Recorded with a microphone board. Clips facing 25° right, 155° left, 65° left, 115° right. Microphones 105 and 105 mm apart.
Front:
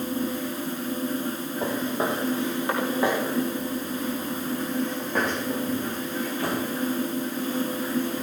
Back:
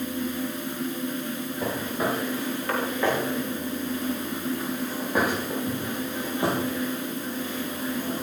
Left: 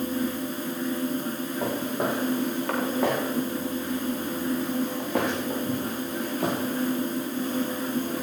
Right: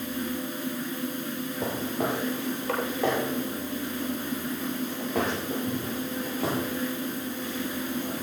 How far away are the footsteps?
About 6.5 m.